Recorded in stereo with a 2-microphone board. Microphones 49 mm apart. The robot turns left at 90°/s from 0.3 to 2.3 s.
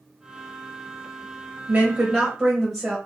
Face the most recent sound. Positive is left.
turn(degrees=-160)